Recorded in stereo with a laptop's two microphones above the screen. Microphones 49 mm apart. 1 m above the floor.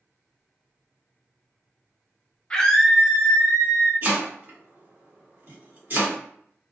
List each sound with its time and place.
2.5 s a scream: 15° left (ahead or behind), 1.1 m; by 3.9 s 70° right (ahead or behind), 1.1 m
4.0 s chopping: 40° right (ahead or behind), 1.5 m